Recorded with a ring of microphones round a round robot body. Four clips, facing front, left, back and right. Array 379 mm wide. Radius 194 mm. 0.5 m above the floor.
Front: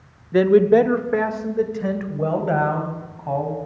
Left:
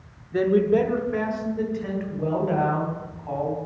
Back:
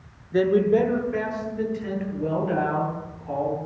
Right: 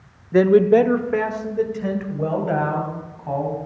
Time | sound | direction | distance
0.3 | a man speaking | 55° right | 0.8 m